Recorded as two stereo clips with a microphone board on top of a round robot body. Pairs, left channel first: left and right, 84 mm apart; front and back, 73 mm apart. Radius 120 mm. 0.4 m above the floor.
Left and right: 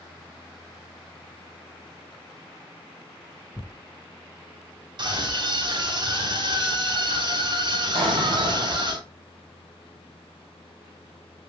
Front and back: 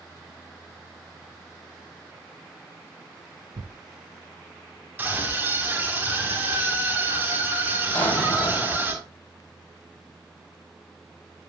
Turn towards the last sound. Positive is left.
turn(degrees=-70)